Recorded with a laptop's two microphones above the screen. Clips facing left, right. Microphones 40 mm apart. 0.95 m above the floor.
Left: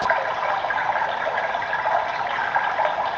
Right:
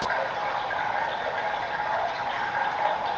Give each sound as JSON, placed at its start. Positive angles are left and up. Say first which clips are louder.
{"t": 0.0, "sound": "running water", "louder": "left 5 dB", "side_deg": 70, "distance_m": 1.1}